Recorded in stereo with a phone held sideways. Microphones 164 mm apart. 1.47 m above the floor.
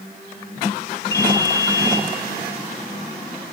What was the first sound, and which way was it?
A ringtone, 20° left (ahead or behind).